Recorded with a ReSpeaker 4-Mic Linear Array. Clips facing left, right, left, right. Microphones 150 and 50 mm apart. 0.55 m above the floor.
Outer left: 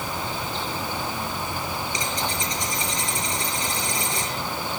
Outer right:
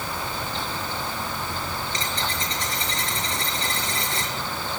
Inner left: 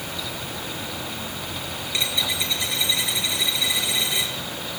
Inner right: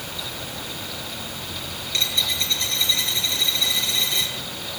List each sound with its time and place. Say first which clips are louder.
1.9 s a dropped coin: outer left 1 dB, inner right 1 dB; 15° left (ahead or behind), 5 m